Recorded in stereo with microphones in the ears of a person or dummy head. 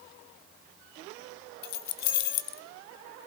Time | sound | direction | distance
1.6 | keys jangling | 55° left (ahead or behind) | 0.6 m